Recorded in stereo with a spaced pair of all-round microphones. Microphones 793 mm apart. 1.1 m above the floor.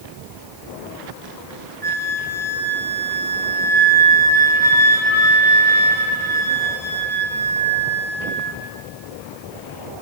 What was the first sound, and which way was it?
A flute, 35° left (ahead or behind).